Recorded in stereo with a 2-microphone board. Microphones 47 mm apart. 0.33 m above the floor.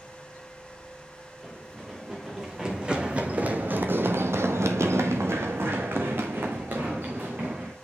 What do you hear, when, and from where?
1.4 s running footsteps: 5° right (ahead or behind), 2 m; by 7.7 s 40° right (ahead or behind), 2.5 m